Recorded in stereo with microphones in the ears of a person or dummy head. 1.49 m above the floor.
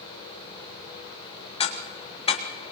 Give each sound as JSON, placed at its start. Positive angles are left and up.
{"t": 1.6, "sound": "ticking", "side_deg": 35, "distance_m": 1.9}